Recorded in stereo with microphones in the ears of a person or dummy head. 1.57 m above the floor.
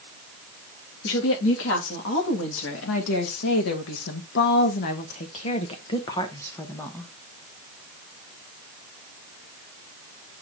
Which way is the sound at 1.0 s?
80° left.